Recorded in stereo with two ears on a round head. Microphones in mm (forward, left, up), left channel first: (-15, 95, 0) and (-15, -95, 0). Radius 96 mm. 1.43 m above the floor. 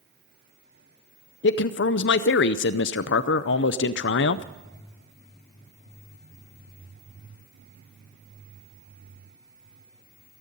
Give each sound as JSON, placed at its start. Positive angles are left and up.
{"t": 1.4, "sound": "a man speaking", "side_deg": 65, "distance_m": 0.5}